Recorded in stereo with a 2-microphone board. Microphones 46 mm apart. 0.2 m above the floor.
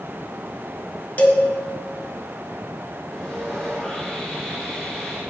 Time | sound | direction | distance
1.2 | a cowbell | 35° left (ahead or behind) | 1.6 m
3.1 | sawing | 10° left (ahead or behind) | 5.5 m